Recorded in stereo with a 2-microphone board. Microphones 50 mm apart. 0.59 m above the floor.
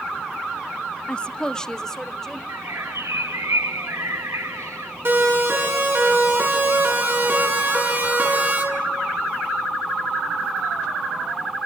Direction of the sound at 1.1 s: 20° left (ahead or behind).